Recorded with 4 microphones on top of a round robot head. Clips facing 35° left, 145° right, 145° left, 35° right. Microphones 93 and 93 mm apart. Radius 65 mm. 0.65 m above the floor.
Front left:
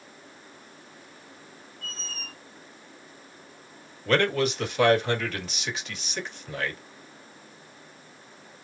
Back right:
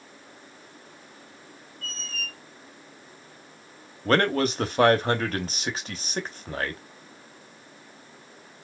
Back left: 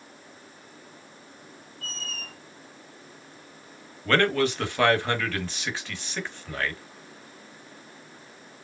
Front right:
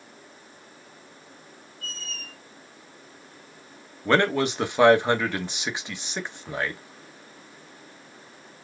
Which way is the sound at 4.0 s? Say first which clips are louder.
Back right 1 dB, front right 1 dB; 105° right.